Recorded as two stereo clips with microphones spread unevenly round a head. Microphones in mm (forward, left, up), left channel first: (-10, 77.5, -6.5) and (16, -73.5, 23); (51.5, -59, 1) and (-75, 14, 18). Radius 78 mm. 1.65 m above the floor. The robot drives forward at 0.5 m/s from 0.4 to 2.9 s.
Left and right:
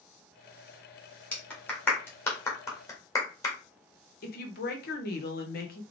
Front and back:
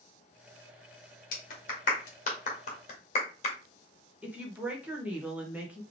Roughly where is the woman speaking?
Left.